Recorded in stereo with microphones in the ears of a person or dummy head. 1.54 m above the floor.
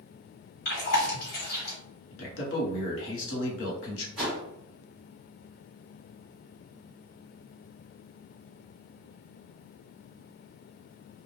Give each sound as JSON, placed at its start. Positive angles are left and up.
{"t": 0.7, "sound": "chewing", "side_deg": 60, "distance_m": 1.4}
{"t": 2.1, "sound": "a man speaking", "side_deg": 75, "distance_m": 1.1}
{"t": 4.2, "sound": "a whoosh", "side_deg": 0, "distance_m": 1.6}